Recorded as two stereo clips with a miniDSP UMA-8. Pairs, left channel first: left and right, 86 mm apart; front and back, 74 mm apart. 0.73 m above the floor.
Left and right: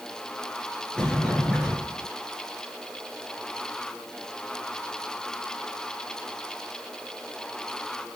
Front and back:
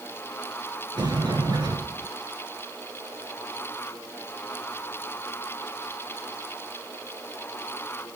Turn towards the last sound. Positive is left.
turn(degrees=170)